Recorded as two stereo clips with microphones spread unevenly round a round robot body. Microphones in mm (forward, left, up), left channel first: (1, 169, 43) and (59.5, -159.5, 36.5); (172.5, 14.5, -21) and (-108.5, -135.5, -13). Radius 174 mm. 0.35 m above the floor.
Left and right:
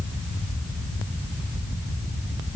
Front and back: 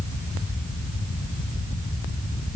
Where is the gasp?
I don't hear a gasp.